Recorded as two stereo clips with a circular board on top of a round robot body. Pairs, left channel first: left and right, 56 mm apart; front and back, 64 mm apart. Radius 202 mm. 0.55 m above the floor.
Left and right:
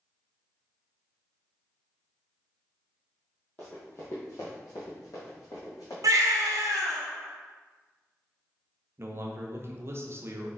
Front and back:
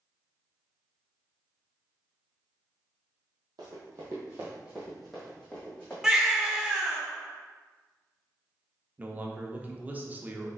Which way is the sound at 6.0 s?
100° right.